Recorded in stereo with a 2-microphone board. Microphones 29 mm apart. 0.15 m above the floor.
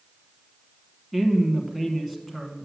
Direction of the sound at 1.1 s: 5° right (ahead or behind).